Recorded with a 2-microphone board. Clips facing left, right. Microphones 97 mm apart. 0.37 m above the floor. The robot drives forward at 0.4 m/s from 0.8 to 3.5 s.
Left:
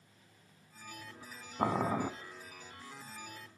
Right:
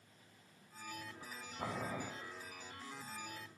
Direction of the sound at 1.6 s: 75° left (ahead or behind).